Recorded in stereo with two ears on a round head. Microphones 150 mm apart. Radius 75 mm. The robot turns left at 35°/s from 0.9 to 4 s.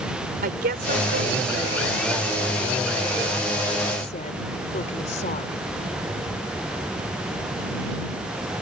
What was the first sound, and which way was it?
A woman speaking, 120° right.